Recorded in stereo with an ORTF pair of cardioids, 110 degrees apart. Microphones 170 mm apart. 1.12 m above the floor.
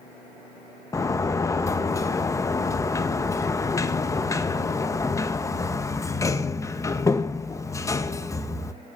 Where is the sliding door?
20° left, 1.0 m.